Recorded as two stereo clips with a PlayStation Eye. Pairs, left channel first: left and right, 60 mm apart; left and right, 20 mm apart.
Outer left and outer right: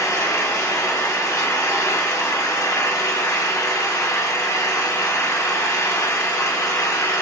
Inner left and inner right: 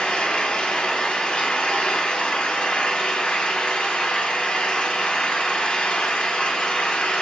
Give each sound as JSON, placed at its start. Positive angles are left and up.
{"t": 0.0, "sound": "an engine running", "side_deg": 75, "distance_m": 1.2}